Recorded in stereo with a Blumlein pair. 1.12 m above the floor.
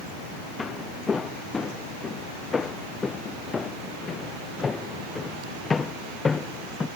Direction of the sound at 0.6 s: 15° left.